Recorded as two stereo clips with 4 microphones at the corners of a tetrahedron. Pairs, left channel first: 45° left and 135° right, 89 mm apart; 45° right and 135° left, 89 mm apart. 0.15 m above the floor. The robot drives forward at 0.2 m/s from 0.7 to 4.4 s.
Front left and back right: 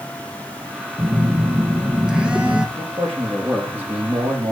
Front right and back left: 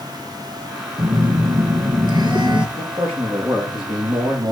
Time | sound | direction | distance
1.0 | a phone buzzing | 135° left | 1.1 m
2.8 | a man speaking | 150° left | 5.5 m